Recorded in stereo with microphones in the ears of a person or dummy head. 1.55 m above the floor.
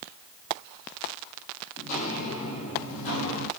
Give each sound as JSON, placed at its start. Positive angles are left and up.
{"t": 1.8, "sound": "footsteps", "side_deg": 40, "distance_m": 2.5}